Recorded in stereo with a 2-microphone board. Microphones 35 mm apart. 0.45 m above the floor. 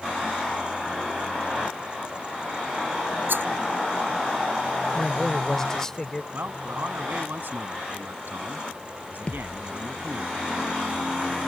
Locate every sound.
3.3 s a rattle: 70° right (ahead or behind)
4.9 s a man speaking: 15° left (ahead or behind)
6.3 s a man speaking: 75° right (ahead or behind)
9.3 s a thud: 35° left (ahead or behind)